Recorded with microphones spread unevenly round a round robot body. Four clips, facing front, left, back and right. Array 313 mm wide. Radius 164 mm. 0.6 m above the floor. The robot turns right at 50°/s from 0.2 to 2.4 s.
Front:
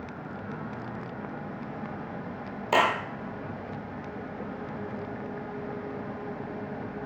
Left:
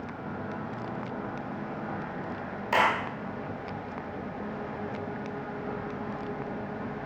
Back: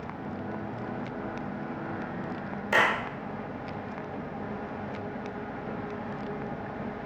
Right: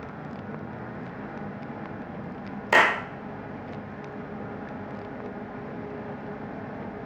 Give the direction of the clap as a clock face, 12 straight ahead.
2 o'clock.